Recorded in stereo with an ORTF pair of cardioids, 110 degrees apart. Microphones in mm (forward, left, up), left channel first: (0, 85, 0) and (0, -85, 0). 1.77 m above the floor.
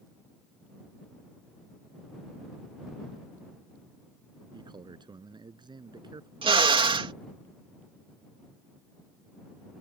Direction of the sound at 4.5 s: 25° right.